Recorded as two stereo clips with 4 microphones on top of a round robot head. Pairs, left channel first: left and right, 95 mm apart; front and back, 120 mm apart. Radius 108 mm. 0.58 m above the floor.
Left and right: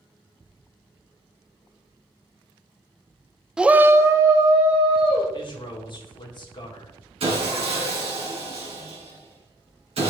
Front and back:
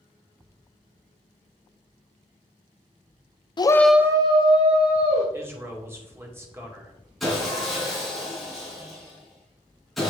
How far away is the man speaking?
About 2.5 m.